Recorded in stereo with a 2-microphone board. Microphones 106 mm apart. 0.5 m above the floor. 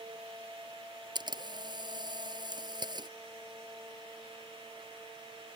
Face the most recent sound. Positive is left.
turn(degrees=-40)  # may be behind; listen again after turning